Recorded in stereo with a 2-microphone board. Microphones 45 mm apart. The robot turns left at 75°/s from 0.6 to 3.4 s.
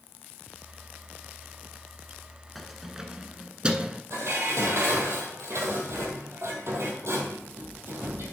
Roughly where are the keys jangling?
Centre.